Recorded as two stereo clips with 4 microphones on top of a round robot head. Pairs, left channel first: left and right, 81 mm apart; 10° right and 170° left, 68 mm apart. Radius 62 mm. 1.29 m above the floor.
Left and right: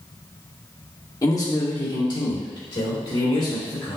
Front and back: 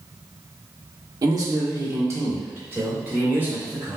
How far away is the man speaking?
About 1.1 m.